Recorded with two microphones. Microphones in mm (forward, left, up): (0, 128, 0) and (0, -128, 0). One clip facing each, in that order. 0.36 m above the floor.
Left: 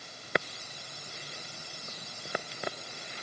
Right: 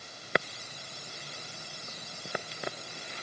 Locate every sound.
Only background noise.